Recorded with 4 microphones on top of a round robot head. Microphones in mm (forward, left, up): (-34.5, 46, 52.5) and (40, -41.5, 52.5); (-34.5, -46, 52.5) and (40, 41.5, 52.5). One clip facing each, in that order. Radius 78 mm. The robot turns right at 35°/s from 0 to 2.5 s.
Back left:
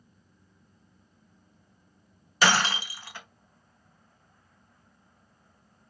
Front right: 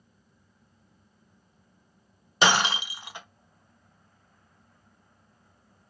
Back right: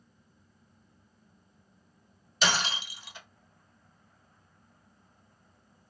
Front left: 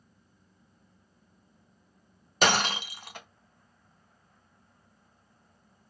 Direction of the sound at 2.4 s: 15° left.